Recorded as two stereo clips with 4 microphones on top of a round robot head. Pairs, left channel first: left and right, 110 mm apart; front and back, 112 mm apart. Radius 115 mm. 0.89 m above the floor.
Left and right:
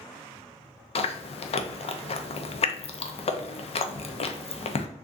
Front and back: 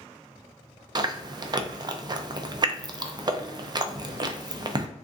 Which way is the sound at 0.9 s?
125° left.